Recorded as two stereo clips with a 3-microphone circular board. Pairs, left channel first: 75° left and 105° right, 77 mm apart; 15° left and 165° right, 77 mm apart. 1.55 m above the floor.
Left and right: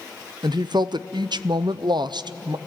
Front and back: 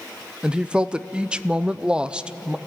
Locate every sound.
0.4 s a woman speaking: 90° right, 0.6 m